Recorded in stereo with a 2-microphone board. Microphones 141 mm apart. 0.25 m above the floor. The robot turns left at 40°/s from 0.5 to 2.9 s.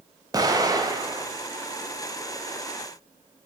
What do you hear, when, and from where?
0.3 s an explosion: 25° right (ahead or behind), 0.6 m